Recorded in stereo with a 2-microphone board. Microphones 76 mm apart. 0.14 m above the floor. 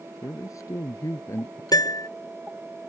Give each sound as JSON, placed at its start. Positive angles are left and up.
{"t": 0.2, "sound": "a man speaking", "side_deg": 50}
{"t": 1.7, "sound": "a piano", "side_deg": 60}